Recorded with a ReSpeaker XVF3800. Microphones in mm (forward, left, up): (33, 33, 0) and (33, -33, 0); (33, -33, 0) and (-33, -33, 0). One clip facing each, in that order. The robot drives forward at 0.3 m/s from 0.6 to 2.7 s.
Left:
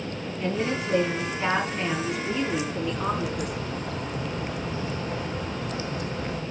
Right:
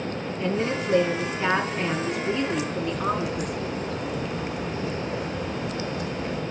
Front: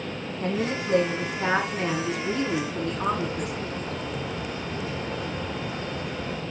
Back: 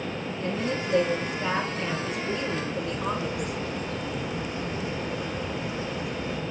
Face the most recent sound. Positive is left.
turn(degrees=45)